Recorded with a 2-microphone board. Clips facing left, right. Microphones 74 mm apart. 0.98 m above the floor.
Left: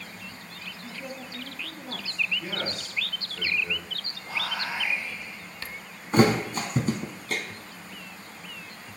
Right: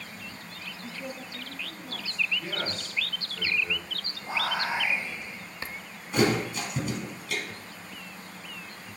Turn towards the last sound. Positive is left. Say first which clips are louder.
# left 4 dB
turn(degrees=45)  # may be behind; listen again after turning